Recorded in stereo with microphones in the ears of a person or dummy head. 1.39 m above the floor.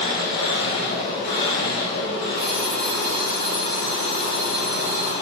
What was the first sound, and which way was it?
An engine running, 25° left (ahead or behind).